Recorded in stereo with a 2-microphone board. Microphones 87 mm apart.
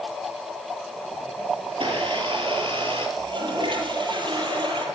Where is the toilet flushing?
75° right (ahead or behind), 7.5 m.